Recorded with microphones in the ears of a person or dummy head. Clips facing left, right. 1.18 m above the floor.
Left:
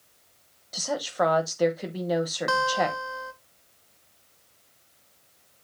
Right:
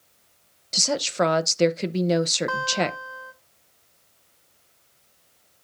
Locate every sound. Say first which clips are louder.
0.7 s a woman speaking: right 3 dB; 35° right (ahead or behind), 0.7 m
2.5 s a guitar: left 1 dB; 45° left (ahead or behind), 1.0 m